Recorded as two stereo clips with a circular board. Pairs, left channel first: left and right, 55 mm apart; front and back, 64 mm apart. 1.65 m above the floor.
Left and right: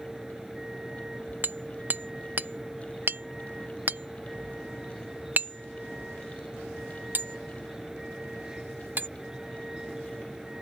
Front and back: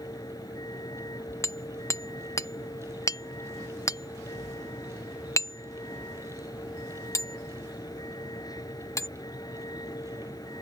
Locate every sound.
0.0 s a vehicle: 10° right
1.4 s hammering: 35° right